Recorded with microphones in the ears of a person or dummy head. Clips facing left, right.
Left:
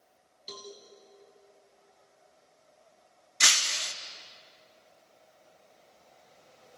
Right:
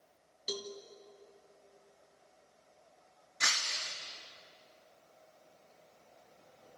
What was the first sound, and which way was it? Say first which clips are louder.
A cowbell: right 4 dB; 20° right (ahead or behind).